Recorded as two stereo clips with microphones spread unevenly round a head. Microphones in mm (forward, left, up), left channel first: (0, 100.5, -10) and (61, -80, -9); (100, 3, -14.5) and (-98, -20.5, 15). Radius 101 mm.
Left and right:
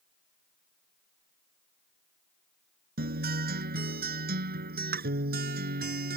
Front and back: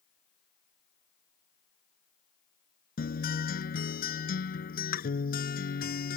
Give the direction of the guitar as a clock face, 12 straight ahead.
1 o'clock.